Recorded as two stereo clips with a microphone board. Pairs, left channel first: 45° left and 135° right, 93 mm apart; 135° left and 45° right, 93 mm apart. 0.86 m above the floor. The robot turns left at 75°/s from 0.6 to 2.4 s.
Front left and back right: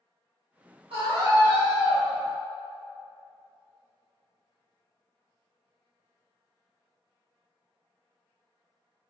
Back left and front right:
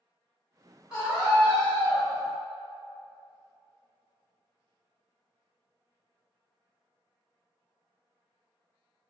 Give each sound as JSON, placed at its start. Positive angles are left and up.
{"t": 0.9, "sound": "a scream", "azimuth_deg": -130, "distance_m": 1.2}